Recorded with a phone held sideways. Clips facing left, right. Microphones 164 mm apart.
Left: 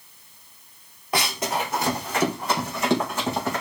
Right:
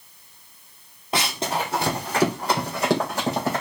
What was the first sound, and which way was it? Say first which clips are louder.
Running footsteps: even; 25° right (ahead or behind).